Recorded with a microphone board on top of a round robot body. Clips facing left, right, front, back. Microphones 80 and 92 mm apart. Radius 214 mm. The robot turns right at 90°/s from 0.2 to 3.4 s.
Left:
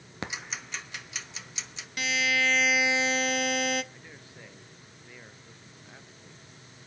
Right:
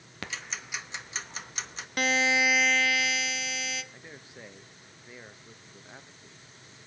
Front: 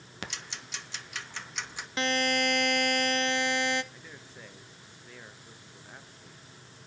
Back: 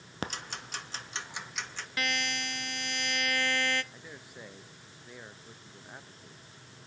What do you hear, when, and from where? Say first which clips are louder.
0.2 s ticking: left 2 dB, back 4 dB; 145° left, 1.5 m; by 1.9 s 65° right, 1.5 m
2.0 s a buzzer: right 2 dB, front 7 dB; 60° right, 0.9 m; by 3.8 s 70° left, 0.9 m
3.9 s a man speaking: right 2 dB, back 1 dB; 130° right, 1.1 m